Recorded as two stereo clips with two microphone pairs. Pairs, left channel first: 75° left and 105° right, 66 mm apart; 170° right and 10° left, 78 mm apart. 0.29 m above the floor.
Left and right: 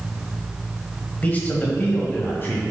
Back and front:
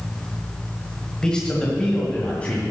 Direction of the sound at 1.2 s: 115° left.